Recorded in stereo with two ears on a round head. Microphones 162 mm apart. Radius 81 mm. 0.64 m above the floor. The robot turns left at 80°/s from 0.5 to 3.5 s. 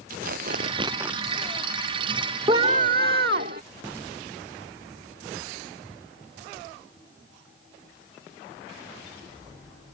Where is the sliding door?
No sliding door in this recording.